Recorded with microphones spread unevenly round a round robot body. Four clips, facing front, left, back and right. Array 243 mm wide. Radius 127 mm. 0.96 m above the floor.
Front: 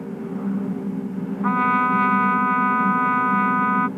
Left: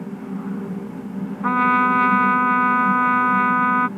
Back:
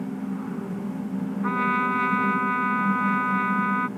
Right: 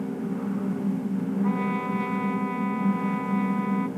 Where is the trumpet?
75° left.